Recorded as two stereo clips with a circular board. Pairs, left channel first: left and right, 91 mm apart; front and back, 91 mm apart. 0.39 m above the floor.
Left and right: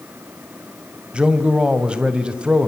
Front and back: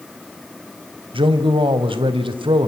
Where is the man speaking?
170° right, 1.8 m.